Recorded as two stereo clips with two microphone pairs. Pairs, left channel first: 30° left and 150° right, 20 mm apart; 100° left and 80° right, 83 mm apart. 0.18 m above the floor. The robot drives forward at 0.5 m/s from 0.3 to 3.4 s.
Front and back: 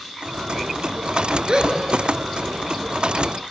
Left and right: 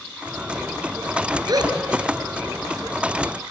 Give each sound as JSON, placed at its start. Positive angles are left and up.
{"t": 1.5, "sound": "a gasp", "azimuth_deg": -105, "distance_m": 2.0}